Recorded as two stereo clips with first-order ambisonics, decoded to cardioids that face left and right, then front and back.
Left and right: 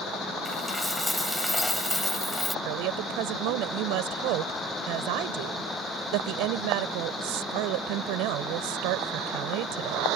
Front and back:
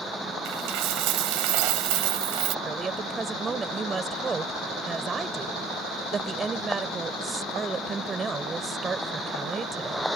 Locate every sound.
0.5 s a dropped coin: 175° left
2.6 s a woman speaking: 110° right